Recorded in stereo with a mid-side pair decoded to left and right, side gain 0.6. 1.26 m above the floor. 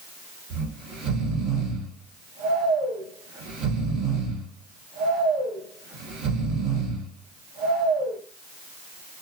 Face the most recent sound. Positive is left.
turn(degrees=-60)